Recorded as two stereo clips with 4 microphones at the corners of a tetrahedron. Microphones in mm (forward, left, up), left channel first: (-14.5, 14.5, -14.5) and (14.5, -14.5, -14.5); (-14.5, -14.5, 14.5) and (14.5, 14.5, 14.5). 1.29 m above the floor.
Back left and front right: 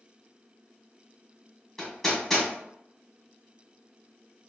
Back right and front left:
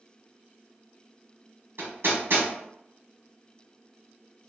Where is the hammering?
55° left, 1.7 m.